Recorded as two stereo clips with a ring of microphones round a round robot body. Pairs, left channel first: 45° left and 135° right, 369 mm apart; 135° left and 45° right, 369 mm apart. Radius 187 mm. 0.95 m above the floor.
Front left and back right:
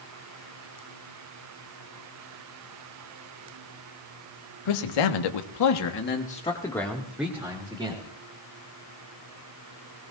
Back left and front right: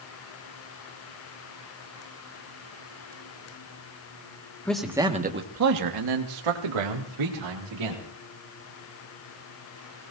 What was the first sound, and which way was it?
A man speaking, 50° left.